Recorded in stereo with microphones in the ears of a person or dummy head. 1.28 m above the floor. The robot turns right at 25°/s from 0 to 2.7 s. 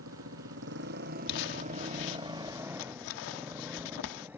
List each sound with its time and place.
0.0 s a motorcycle: 80° right; by 4.4 s 10° right (ahead or behind)
1.3 s crumpling: 60° left (ahead or behind); by 4.3 s 70° left (ahead or behind)